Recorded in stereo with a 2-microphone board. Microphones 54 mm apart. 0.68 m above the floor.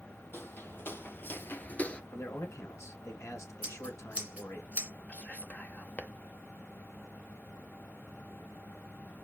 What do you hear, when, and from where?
0.3 s footsteps: 40° left (ahead or behind), 1.6 m; by 2.0 s 20° left (ahead or behind), 0.7 m
2.1 s a man speaking: 65° left (ahead or behind), 2.5 m
3.6 s scissors: 25° right (ahead or behind), 2.0 m
5.1 s whispering: 30° left (ahead or behind), 0.8 m